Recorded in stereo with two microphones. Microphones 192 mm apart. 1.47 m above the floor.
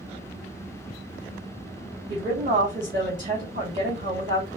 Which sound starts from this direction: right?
A woman speaking, at 2.1 s.